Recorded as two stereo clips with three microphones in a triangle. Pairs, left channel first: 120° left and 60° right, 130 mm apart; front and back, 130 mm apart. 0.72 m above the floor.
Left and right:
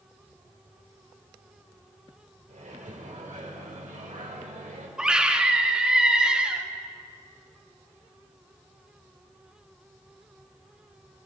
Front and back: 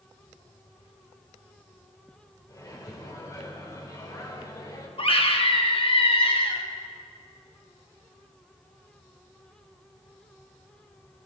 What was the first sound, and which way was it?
A microwave, 65° right.